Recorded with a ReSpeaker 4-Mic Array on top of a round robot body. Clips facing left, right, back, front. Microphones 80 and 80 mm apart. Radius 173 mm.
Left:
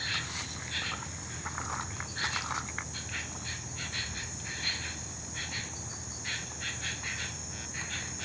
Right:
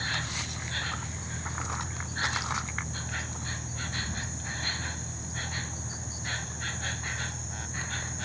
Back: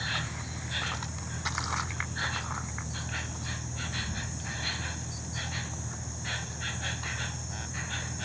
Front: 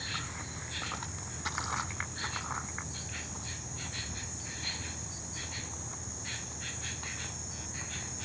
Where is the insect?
145° right.